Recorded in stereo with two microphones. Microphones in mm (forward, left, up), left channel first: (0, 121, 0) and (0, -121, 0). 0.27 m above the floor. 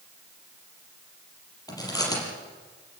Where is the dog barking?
No dog barking in this recording.